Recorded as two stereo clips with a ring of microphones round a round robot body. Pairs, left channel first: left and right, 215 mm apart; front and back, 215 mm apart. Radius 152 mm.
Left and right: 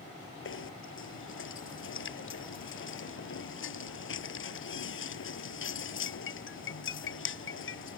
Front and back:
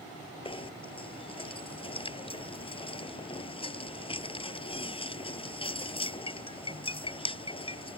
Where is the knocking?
65° left.